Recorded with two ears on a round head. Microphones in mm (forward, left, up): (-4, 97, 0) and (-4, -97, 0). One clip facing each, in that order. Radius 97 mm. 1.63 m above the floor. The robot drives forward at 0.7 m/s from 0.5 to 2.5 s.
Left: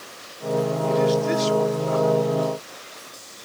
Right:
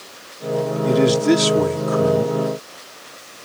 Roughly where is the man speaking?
Right.